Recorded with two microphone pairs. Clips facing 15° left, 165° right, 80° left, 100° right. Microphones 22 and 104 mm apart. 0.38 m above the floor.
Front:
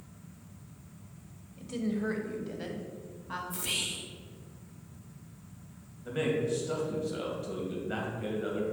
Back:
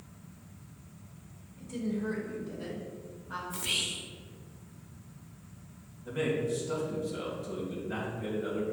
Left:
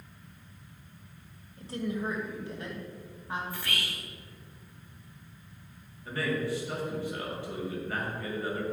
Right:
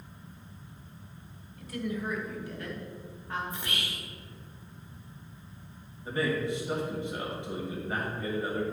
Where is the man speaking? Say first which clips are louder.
Front 1 dB, right 1 dB; 35° right, 2 m.